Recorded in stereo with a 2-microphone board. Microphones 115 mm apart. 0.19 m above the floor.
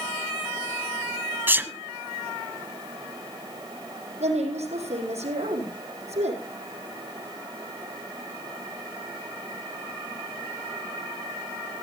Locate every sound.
1.5 s a sneeze: 20° right (ahead or behind), 1.1 m
4.2 s a woman speaking: 75° right (ahead or behind), 7 m